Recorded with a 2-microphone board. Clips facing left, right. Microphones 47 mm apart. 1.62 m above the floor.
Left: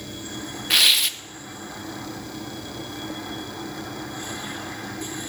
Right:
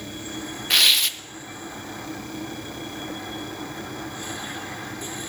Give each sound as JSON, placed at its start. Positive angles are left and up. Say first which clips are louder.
{"t": 0.7, "sound": "tearing paper", "louder": "even", "side_deg": 0, "distance_m": 0.5}